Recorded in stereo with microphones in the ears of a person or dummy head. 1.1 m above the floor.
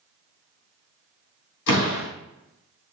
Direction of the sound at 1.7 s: 65° left (ahead or behind).